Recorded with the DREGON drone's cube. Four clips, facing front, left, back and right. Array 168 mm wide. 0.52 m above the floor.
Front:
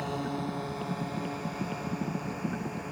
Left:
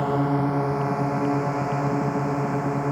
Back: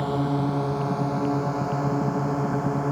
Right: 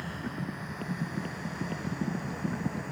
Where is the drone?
110° left; by 2.9 s 130° left.